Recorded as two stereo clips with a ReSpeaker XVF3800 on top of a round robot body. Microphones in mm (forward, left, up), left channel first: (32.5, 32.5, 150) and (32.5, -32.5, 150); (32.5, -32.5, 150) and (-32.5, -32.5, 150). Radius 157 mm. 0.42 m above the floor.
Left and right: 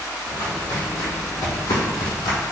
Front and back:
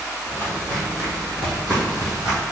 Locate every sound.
0.3 s footsteps: 60° left, 1.7 m; by 2.4 s 100° left, 1.4 m